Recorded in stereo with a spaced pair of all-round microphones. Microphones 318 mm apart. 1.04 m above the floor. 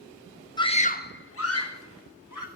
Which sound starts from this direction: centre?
A scream, at 0.6 s.